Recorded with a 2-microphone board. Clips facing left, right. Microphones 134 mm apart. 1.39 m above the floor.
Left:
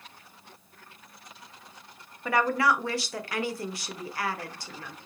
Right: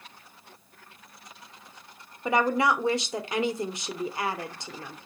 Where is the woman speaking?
20° right (ahead or behind), 0.8 m.